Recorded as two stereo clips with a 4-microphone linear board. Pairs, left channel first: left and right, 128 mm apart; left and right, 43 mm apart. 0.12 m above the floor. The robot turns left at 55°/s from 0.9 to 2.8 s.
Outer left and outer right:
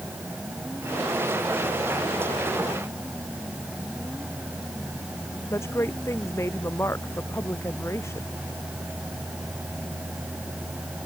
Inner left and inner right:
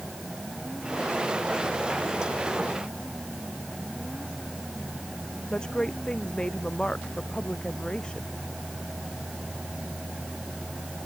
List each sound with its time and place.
5.5 s a woman speaking: 20° left (ahead or behind)